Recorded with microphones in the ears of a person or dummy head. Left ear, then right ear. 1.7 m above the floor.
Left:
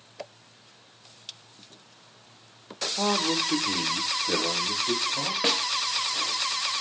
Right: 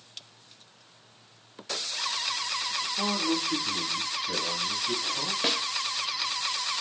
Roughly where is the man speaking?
Left.